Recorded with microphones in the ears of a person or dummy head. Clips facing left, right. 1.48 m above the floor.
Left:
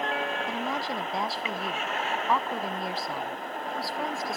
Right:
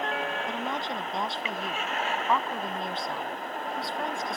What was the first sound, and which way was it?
A woman speaking, 5° left (ahead or behind).